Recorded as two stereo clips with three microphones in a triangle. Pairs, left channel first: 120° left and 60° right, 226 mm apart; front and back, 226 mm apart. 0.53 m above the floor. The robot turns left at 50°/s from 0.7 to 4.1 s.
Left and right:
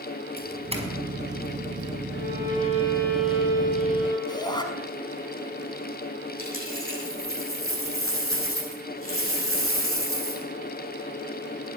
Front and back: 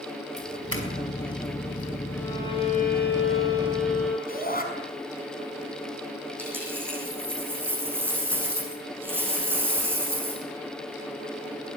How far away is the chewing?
No chewing in this recording.